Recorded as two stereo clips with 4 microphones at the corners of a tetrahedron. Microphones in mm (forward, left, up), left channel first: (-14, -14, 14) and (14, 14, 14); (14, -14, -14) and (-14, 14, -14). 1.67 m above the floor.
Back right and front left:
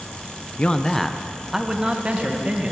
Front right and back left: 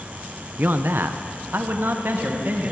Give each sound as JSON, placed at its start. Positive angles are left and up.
{"t": 0.6, "sound": "a man speaking", "azimuth_deg": 165, "distance_m": 0.8}